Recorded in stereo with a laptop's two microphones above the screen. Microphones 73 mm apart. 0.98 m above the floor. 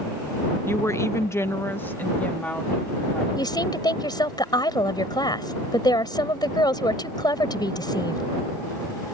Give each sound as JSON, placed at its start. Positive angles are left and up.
{"t": 0.7, "sound": "a woman speaking", "side_deg": 30}
{"t": 3.4, "sound": "a woman speaking", "side_deg": 70}